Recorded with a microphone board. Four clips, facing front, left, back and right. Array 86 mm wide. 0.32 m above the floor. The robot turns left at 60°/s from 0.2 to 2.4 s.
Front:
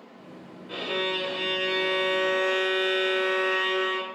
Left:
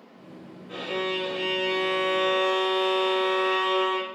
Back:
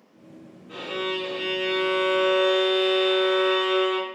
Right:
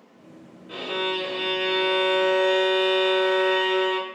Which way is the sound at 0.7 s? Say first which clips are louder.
Right 1 dB, even; 25° right.